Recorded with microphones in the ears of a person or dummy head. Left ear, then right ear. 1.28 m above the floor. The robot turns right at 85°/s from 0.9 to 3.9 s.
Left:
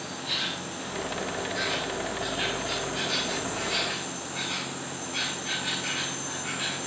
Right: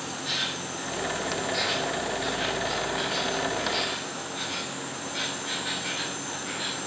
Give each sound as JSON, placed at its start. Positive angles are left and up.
{"t": 0.0, "sound": "an insect", "azimuth_deg": -110, "distance_m": 2.5}